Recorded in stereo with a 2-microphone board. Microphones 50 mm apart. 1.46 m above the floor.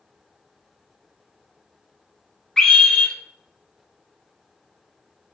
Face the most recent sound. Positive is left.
turn(degrees=10)  # may be behind; listen again after turning